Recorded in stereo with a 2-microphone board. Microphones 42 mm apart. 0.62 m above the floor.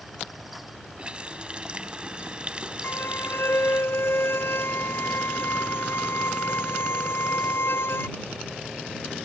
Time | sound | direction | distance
1.0 | a running tap | 25° right (ahead or behind) | ?
2.8 | a violin | 65° left (ahead or behind) | ?